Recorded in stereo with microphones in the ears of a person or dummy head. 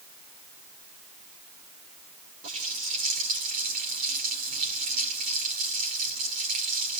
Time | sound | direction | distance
2.4 | a running tap | 45° right (ahead or behind) | 2.5 m